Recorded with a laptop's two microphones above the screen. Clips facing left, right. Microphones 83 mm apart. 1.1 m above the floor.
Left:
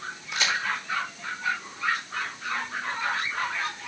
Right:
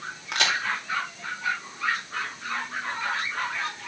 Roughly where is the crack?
Right.